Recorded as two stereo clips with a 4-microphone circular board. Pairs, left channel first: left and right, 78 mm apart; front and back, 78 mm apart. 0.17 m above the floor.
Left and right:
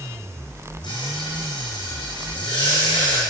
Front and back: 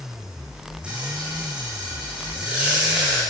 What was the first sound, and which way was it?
Frying, 105° left.